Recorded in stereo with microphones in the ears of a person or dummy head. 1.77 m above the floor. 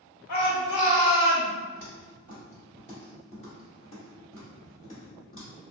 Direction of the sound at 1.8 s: 15° left (ahead or behind).